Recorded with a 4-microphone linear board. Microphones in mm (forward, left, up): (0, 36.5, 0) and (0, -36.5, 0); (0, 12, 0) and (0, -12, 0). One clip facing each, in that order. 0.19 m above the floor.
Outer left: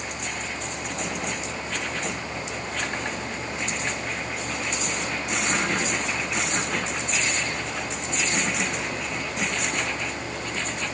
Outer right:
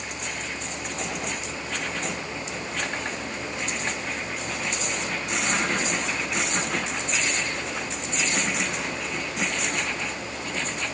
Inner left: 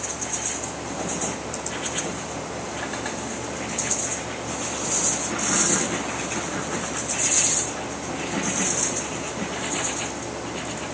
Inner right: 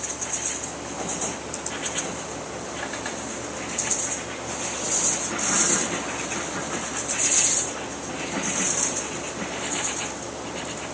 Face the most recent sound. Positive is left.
No sound to turn to.